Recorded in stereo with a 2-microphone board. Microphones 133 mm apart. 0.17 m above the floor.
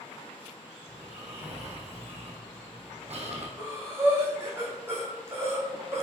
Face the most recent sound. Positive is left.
turn(degrees=-20)  # may be behind; listen again after turning